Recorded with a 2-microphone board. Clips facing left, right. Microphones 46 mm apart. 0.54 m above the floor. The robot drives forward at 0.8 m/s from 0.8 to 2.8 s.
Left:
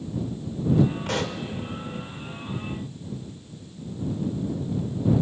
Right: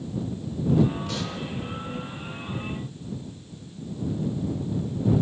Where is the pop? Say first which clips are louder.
Left 4 dB; 60° left (ahead or behind), 1.4 m; by 1.4 s 55° left (ahead or behind), 1.5 m.